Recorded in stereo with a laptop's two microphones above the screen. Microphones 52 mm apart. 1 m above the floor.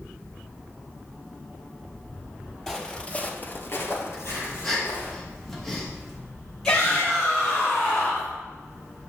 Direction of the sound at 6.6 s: 15° left (ahead or behind).